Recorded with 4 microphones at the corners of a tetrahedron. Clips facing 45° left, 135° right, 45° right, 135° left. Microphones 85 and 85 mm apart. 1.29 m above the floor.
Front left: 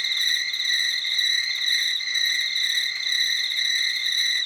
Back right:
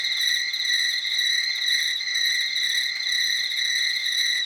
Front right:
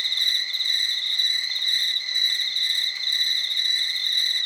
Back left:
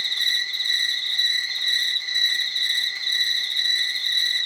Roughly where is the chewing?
I don't hear chewing.